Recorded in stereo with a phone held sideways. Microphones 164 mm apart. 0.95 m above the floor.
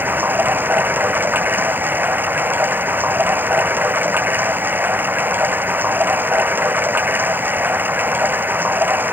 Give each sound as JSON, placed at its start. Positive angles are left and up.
{"t": 0.0, "sound": "running water", "side_deg": -10}